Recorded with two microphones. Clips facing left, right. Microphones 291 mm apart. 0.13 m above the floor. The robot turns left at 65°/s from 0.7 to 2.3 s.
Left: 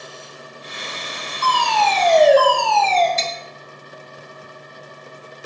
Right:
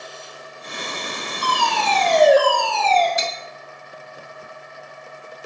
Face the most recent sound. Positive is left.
turn(degrees=-15)  # may be behind; listen again after turning